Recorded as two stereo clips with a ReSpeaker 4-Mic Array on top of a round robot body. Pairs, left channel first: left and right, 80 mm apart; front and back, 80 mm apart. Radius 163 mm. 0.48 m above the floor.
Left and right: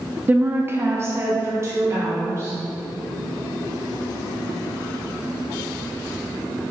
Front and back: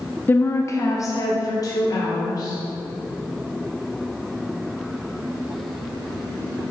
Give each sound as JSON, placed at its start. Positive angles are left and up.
{"t": 0.3, "sound": "a woman speaking", "azimuth_deg": -40, "distance_m": 0.8}